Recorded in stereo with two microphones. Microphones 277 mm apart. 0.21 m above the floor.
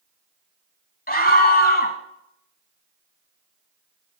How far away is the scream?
About 1.2 m.